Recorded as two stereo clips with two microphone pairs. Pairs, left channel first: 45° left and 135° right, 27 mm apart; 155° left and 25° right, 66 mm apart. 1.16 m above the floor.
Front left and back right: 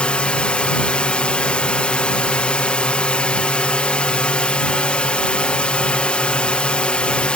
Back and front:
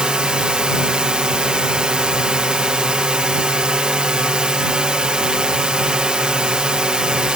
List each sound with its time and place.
0.0 s a drone: 50° left